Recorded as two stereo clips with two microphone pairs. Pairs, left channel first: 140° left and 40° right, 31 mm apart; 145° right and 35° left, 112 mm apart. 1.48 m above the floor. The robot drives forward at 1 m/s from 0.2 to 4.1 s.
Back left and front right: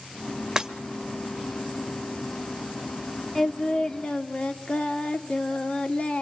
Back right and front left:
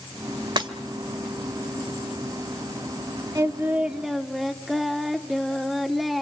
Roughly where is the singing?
Ahead left.